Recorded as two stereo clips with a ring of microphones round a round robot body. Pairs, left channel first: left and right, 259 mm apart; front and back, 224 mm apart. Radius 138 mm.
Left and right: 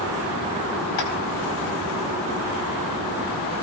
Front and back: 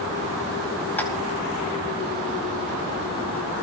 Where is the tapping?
85° left, 4 m.